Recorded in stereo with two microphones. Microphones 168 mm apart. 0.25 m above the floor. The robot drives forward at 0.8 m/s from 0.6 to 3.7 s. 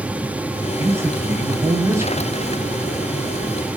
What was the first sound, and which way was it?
A man speaking, 15° right (ahead or behind).